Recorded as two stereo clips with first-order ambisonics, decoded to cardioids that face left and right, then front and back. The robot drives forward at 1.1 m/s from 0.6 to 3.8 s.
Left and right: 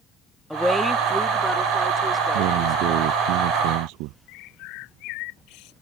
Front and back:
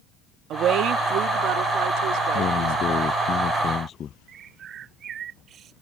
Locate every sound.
0.5 s a woman speaking: straight behind
2.3 s a man speaking: 60° right; by 4.2 s 65° right
4.3 s a bird: 120° left